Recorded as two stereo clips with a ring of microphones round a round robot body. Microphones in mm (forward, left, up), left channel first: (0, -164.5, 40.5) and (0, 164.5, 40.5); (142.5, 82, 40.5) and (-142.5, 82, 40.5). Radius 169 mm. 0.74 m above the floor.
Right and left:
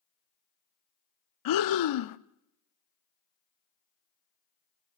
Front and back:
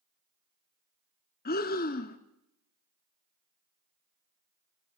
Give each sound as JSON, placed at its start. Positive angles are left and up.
{"t": 1.4, "sound": "breathing", "azimuth_deg": -65, "distance_m": 0.6}